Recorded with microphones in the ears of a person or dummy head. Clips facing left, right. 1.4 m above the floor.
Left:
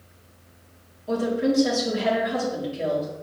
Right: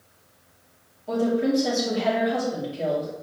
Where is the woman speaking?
5° left (ahead or behind), 3.5 m.